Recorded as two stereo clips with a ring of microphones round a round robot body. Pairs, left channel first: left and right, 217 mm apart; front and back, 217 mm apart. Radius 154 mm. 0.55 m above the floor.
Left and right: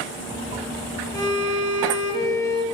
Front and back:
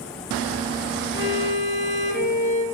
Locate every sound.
1.1 s a violin: 20° left, 2.0 m